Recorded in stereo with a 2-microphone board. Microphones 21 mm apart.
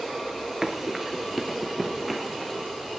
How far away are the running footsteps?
About 1.5 m.